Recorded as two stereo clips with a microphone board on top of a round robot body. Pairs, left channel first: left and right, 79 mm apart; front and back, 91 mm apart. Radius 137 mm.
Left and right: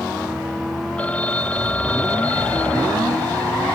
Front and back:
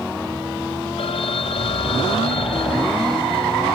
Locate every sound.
1.0 s a phone ringing: 15° left